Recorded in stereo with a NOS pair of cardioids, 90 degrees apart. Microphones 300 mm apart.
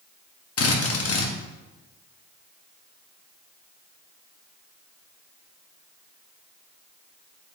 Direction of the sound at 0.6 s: 50° left.